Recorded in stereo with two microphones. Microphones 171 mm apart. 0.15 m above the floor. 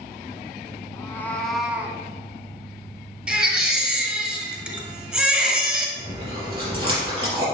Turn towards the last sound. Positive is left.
turn(degrees=-30)  # may be behind; listen again after turning